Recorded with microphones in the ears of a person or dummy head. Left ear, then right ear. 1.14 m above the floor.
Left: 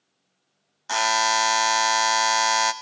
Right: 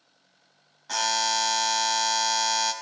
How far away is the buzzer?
About 0.6 m.